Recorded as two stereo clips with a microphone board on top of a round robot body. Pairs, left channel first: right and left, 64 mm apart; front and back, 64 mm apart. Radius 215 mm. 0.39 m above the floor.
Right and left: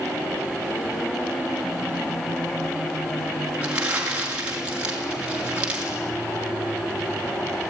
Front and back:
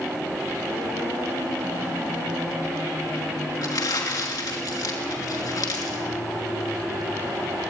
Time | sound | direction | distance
3.6 | crumpling | 20° left | 5 m